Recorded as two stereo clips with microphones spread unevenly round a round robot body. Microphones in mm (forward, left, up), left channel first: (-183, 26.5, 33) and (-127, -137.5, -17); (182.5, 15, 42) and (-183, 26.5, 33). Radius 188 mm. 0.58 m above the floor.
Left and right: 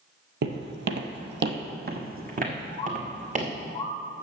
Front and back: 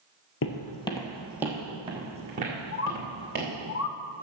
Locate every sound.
0.4 s footsteps: 50° right, 0.8 m; by 3.5 s 115° right, 3 m
2.7 s a bird: 40° left, 0.7 m